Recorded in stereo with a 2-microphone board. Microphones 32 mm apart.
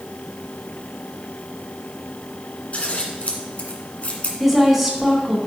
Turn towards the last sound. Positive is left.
turn(degrees=-5)  # may be behind; listen again after turning